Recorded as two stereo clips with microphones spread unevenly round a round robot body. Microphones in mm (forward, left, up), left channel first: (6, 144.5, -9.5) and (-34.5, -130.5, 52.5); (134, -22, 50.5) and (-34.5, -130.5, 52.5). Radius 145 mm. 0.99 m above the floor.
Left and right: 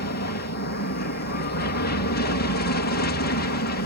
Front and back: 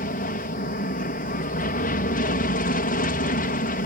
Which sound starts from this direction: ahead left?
An aircraft, at 0.0 s.